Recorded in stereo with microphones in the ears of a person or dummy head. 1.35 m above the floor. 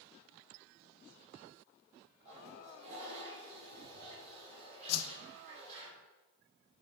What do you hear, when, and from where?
2.2 s a toilet flushing: 40° right (ahead or behind), 3.5 m
4.9 s a whoosh: 80° left, 0.7 m